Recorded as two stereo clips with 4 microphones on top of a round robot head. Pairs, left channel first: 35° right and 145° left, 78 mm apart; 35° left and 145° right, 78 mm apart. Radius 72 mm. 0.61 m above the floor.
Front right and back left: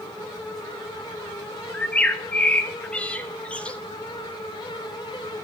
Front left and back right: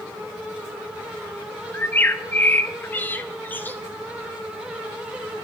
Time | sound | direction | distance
1.7 | a bird | 15° left | 1.1 m